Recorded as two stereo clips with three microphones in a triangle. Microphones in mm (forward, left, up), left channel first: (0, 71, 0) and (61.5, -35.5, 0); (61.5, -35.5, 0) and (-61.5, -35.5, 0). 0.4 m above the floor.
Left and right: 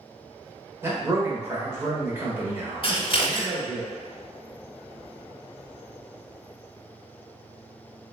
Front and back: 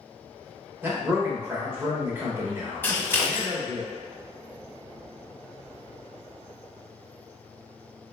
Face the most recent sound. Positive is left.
turn(degrees=70)